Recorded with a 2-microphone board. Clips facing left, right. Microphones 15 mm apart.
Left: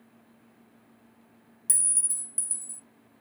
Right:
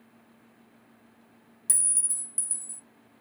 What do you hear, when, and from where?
1.7 s a clink: centre (ahead or behind), 0.5 m